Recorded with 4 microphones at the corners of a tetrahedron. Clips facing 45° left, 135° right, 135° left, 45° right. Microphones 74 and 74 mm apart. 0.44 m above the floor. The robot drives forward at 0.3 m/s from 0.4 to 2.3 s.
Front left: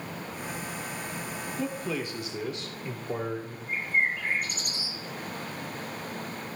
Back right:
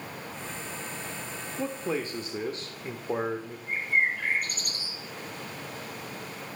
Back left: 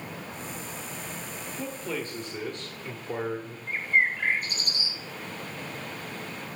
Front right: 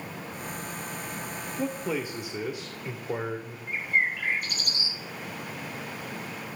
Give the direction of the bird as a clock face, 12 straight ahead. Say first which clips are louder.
Back right 1 dB, back left 2 dB; 6 o'clock.